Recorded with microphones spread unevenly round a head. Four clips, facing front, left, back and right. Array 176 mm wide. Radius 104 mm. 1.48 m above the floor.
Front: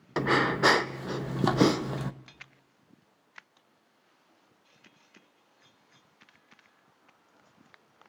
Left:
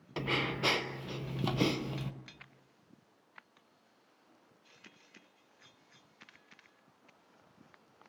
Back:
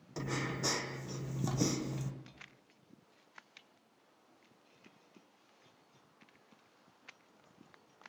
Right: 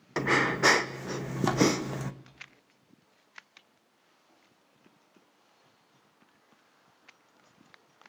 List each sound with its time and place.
0.2 s breathing: 30° right, 1.3 m